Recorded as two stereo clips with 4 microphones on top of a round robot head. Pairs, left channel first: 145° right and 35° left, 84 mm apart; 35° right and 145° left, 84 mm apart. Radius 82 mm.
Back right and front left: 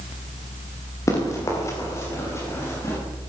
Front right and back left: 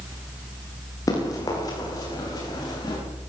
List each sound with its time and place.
1.1 s running footsteps: 85° right, 9.5 m; by 3.0 s 80° right, 10.5 m